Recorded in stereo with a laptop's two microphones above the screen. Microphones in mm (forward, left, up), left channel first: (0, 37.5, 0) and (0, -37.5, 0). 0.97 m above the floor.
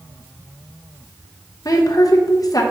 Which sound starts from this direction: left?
A woman speaking, at 1.6 s.